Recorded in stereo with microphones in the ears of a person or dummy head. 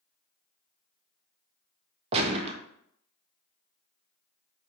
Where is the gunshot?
30° right (ahead or behind), 0.5 m.